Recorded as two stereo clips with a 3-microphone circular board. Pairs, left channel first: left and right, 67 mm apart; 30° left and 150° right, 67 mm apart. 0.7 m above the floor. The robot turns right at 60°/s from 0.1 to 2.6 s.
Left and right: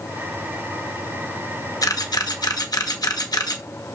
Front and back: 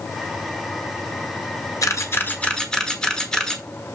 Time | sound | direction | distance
1.8 | a camera shutter | 60° left | 1.1 m